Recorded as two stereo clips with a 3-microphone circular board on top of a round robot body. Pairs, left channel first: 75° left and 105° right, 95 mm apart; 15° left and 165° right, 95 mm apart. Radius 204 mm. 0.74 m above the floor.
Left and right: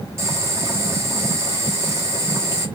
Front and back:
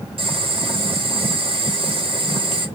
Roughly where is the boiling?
Behind.